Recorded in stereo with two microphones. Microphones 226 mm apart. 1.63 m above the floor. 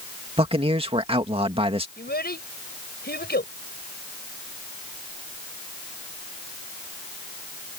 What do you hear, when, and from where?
0.4 s a man speaking: 25° right (ahead or behind)
2.0 s a child speaking: 45° left (ahead or behind)